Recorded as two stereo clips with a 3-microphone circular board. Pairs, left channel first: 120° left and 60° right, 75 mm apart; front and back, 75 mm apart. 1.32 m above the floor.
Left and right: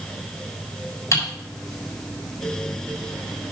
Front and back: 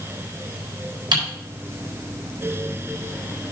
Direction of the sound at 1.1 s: 170° left.